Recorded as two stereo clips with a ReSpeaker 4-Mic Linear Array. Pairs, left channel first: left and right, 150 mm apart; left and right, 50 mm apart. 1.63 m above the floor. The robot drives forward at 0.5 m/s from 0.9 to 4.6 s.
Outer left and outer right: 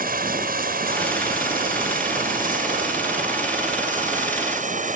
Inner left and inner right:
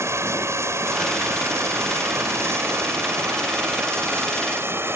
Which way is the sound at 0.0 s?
70° right (ahead or behind).